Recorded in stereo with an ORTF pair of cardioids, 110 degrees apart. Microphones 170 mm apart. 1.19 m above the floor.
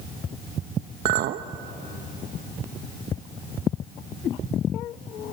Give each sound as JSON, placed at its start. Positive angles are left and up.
{"t": 1.1, "sound": "a clink", "azimuth_deg": -65, "distance_m": 0.8}